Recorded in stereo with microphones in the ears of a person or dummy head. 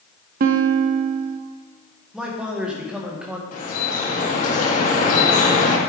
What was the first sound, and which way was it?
A guitar, 55° right (ahead or behind).